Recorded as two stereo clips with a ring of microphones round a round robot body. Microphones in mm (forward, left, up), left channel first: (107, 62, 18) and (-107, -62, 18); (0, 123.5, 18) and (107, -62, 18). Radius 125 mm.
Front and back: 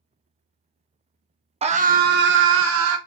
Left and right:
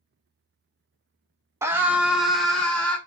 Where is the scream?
125° right, 0.8 m; by 3.0 s 160° right, 1.3 m.